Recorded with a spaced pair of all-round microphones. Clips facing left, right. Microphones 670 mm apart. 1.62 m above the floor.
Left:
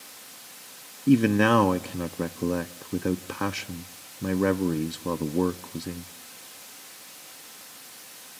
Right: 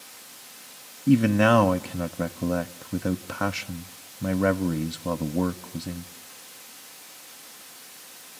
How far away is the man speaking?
About 0.7 m.